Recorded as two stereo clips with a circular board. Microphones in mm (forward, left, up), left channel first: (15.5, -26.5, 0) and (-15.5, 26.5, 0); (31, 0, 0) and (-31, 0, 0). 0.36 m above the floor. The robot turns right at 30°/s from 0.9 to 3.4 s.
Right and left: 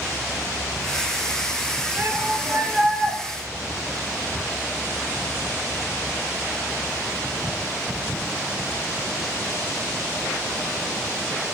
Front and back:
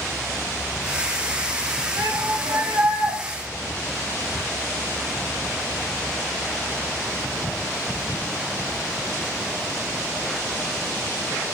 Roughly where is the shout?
Behind.